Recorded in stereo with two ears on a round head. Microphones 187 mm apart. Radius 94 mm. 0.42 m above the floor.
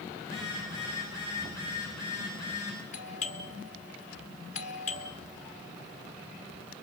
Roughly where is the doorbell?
Left.